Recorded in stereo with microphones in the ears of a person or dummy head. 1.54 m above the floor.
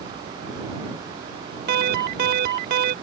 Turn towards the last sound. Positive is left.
turn(degrees=-60)  # may be behind; listen again after turning